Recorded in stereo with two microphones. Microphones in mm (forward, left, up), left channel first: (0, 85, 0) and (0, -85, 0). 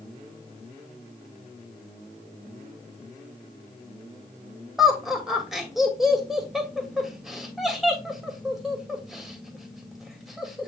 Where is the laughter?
Centre (ahead or behind), 2.5 m.